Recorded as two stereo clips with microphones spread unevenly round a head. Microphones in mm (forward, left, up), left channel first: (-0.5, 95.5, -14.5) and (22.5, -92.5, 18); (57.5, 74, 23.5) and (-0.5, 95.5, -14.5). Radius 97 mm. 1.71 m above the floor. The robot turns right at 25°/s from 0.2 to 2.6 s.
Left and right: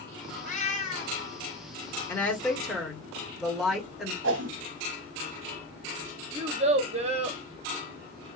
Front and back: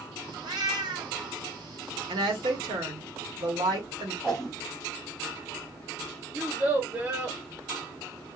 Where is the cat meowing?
135° left, 1.3 m; by 1.2 s 150° left, 1.3 m.